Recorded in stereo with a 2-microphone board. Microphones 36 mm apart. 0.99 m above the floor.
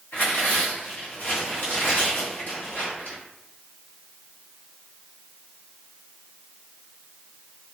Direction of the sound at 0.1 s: 70° left (ahead or behind).